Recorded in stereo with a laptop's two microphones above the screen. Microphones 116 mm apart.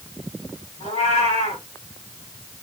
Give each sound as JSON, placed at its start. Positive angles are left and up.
{"t": 0.8, "sound": "a cat meowing", "side_deg": 70, "distance_m": 3.5}